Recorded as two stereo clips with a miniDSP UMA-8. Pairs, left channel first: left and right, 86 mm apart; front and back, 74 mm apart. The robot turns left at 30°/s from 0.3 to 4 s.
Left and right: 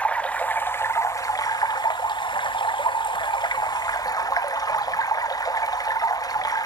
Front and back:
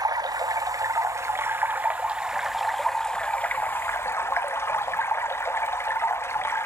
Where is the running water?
165° left, 0.8 m; by 6.7 s 50° left, 0.8 m.